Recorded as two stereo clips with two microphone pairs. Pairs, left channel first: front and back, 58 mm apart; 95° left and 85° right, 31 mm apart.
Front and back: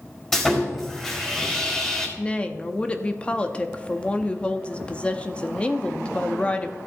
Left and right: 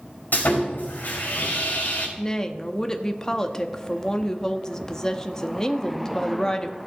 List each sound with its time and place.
0.3 s sawing: 80° left, 4 m
2.2 s a woman speaking: 45° left, 0.8 m